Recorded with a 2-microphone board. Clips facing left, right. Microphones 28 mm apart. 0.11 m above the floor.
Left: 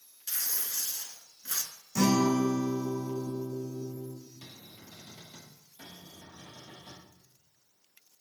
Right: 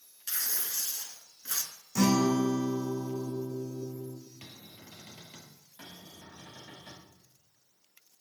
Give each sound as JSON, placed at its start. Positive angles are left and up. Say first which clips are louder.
{"t": 0.3, "sound": "tearing paper", "louder": "right 1 dB", "side_deg": -20, "distance_m": 1.5}
{"t": 1.9, "sound": "a guitar", "louder": "even", "side_deg": -5, "distance_m": 3.0}
{"t": 4.4, "sound": "a cupboard door", "louder": "even", "side_deg": -50, "distance_m": 2.0}
{"t": 5.8, "sound": "a cupboard door", "louder": "even", "side_deg": -70, "distance_m": 5.5}